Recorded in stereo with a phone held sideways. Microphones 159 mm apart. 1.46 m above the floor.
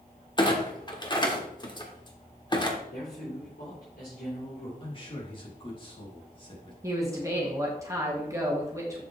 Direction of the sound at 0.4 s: 30° left (ahead or behind).